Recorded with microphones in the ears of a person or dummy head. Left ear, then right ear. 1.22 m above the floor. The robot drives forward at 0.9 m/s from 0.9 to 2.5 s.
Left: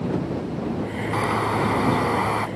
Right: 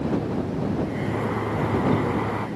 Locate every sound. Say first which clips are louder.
1.1 s a bird: left 6 dB; 70° left (ahead or behind); by 2.5 s 80° left